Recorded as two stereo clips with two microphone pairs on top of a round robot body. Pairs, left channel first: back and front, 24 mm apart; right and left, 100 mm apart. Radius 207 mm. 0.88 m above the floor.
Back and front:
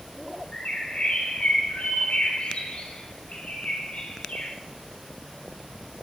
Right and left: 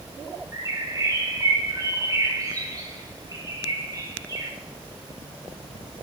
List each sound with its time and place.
0.5 s a bird: 145° left, 4.5 m